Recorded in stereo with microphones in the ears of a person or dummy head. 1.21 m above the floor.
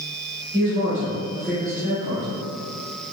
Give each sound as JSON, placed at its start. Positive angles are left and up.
{"t": 0.5, "sound": "a man speaking", "side_deg": -20, "distance_m": 1.9}